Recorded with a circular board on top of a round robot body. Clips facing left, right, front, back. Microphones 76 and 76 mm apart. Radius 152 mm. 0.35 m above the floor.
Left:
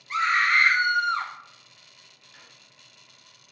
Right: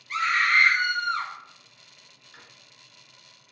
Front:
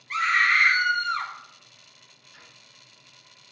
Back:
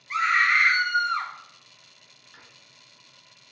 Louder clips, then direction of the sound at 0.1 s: Left 1 dB, even; 120° left.